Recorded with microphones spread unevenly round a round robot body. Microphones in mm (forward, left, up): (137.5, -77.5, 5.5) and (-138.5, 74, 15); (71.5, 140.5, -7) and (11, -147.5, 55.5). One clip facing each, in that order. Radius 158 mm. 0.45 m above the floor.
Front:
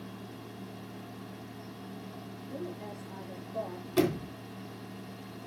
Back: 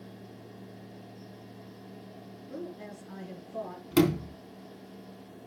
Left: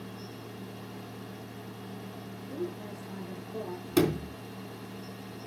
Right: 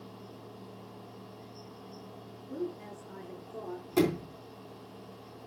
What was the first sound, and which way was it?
A woman speaking, 165° left.